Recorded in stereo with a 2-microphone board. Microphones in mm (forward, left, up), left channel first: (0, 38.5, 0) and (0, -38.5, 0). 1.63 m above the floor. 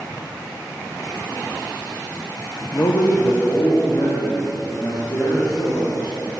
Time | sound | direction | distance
2.7 | a man speaking | 60° left (ahead or behind) | 1.0 m